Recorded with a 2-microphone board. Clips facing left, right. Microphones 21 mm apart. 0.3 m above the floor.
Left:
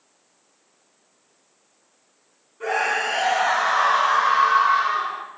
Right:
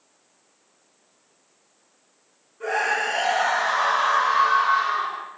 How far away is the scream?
About 2.5 m.